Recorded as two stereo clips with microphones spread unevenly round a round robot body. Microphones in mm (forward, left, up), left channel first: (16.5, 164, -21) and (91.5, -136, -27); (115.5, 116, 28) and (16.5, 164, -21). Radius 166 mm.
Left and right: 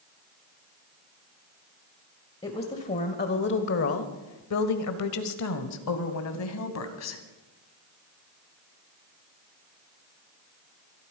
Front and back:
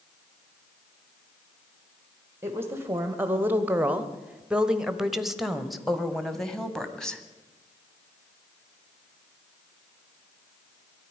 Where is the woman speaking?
175° left, 1.3 m; by 7.2 s 70° left, 2.5 m.